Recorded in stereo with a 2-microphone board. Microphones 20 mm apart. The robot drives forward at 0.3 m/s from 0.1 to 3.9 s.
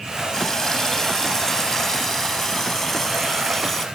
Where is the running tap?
25° left (ahead or behind); by 3.9 s 15° left (ahead or behind).